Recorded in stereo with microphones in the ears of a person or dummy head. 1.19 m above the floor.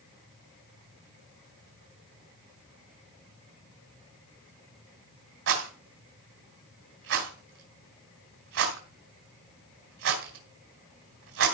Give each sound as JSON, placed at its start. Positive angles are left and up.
{"t": 5.5, "sound": "a rattle", "side_deg": -75, "distance_m": 3.0}